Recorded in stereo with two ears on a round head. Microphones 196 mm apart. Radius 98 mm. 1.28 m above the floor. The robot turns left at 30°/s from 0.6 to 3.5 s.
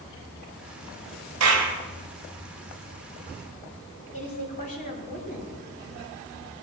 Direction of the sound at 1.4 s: 75° right (ahead or behind).